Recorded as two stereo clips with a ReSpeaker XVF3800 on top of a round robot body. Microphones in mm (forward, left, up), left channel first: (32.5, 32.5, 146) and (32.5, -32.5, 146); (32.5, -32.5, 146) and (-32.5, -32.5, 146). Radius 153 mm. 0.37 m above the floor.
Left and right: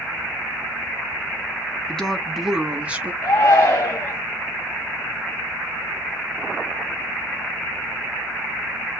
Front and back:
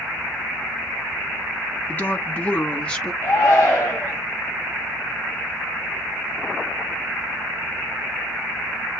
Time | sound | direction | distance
1.9 | a woman speaking | 20° left | 1.4 m
3.2 | a shout | 70° left | 2.5 m